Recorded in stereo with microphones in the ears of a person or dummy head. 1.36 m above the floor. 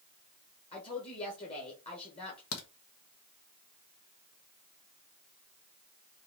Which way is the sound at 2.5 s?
80° left.